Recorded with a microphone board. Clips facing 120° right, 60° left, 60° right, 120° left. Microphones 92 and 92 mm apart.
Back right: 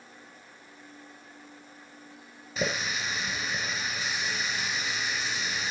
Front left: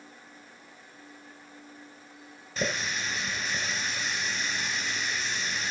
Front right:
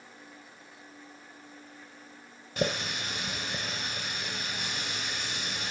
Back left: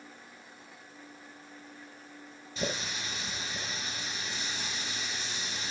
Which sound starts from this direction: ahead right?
A running tap, at 2.6 s.